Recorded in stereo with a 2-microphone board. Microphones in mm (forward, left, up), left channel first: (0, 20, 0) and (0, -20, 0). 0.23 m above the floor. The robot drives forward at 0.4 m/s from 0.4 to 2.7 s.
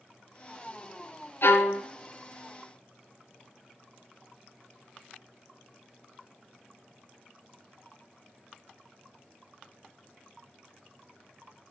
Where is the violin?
65° left (ahead or behind), 0.9 m; by 1.8 s 70° left (ahead or behind), 0.8 m.